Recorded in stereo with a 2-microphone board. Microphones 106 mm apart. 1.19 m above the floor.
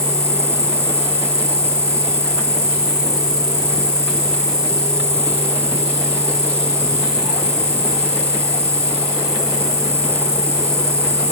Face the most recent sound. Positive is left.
turn(degrees=35)  # may be behind; listen again after turning